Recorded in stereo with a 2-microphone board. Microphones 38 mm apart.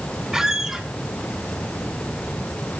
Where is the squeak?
15° right (ahead or behind), 0.8 m.